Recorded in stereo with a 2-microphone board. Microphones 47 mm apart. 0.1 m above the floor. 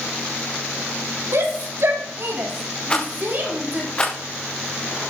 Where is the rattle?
20° left (ahead or behind), 4.5 m.